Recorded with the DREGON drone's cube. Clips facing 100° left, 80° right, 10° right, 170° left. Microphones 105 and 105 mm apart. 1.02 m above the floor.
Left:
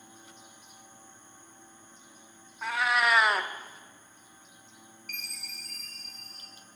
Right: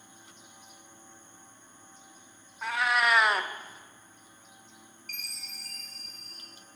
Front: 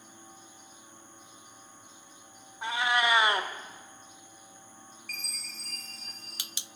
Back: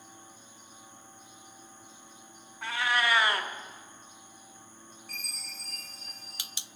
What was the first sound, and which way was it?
A cat meowing, 10° left.